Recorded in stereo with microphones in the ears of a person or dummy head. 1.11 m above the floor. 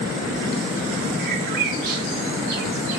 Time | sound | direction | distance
1.2 | a bird | 60° right (ahead or behind) | 1.5 m